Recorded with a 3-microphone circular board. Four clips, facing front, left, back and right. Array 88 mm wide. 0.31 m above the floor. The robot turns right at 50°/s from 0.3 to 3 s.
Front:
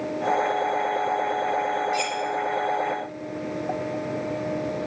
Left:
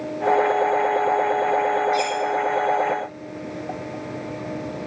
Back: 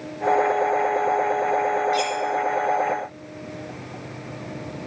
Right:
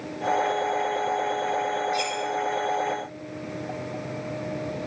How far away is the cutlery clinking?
About 1.5 m.